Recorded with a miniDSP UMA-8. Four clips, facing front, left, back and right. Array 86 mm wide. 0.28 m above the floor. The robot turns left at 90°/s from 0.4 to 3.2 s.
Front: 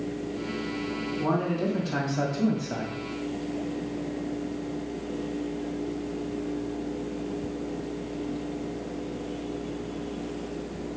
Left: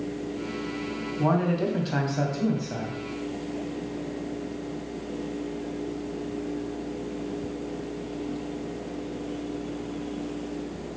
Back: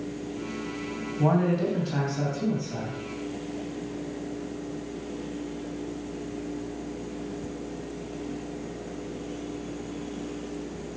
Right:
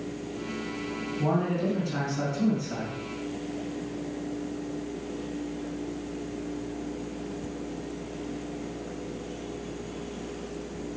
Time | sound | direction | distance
1.2 | a man speaking | 145° left | 2 m